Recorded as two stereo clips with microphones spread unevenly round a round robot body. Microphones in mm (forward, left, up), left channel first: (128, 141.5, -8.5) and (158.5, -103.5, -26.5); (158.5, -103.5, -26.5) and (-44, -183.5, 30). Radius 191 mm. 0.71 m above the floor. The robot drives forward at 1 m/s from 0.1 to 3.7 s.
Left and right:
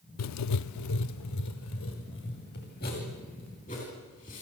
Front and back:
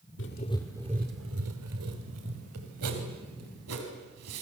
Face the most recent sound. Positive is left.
turn(degrees=170)